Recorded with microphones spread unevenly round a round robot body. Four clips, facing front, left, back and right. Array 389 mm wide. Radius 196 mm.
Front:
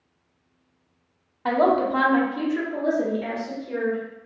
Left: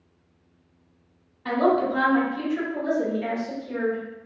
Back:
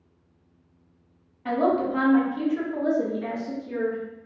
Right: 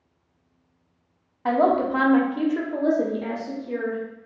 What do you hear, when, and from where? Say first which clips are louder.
1.4 s a woman speaking: right 1 dB, front 3 dB; 35° right, 0.9 m; by 4.0 s 140° right, 1.1 m